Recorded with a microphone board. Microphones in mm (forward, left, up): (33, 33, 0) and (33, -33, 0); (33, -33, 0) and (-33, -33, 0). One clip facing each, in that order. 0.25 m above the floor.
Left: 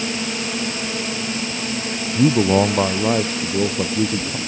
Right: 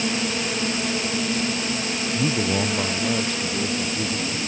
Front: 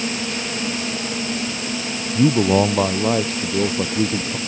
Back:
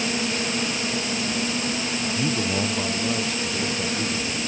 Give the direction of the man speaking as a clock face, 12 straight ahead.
11 o'clock.